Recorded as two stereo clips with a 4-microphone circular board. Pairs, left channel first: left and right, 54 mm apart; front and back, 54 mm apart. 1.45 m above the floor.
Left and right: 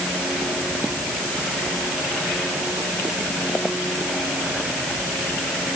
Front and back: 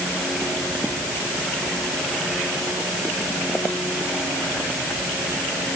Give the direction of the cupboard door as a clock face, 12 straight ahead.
No cupboard door in this recording.